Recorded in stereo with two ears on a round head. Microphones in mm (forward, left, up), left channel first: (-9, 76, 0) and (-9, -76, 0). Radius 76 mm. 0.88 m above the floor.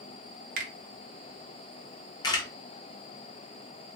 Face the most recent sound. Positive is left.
turn(degrees=25)  # may be behind; listen again after turning